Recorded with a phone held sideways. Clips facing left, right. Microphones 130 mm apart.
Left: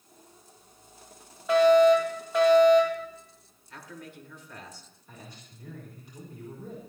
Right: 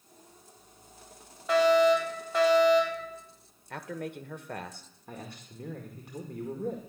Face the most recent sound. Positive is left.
turn(degrees=-65)  # may be behind; listen again after turning